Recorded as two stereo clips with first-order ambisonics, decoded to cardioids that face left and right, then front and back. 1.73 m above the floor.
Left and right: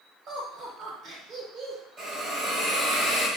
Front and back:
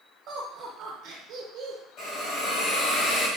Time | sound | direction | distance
0.3 | laughter | 145° right | 1.1 m
2.0 | a hiss | 30° right | 2.0 m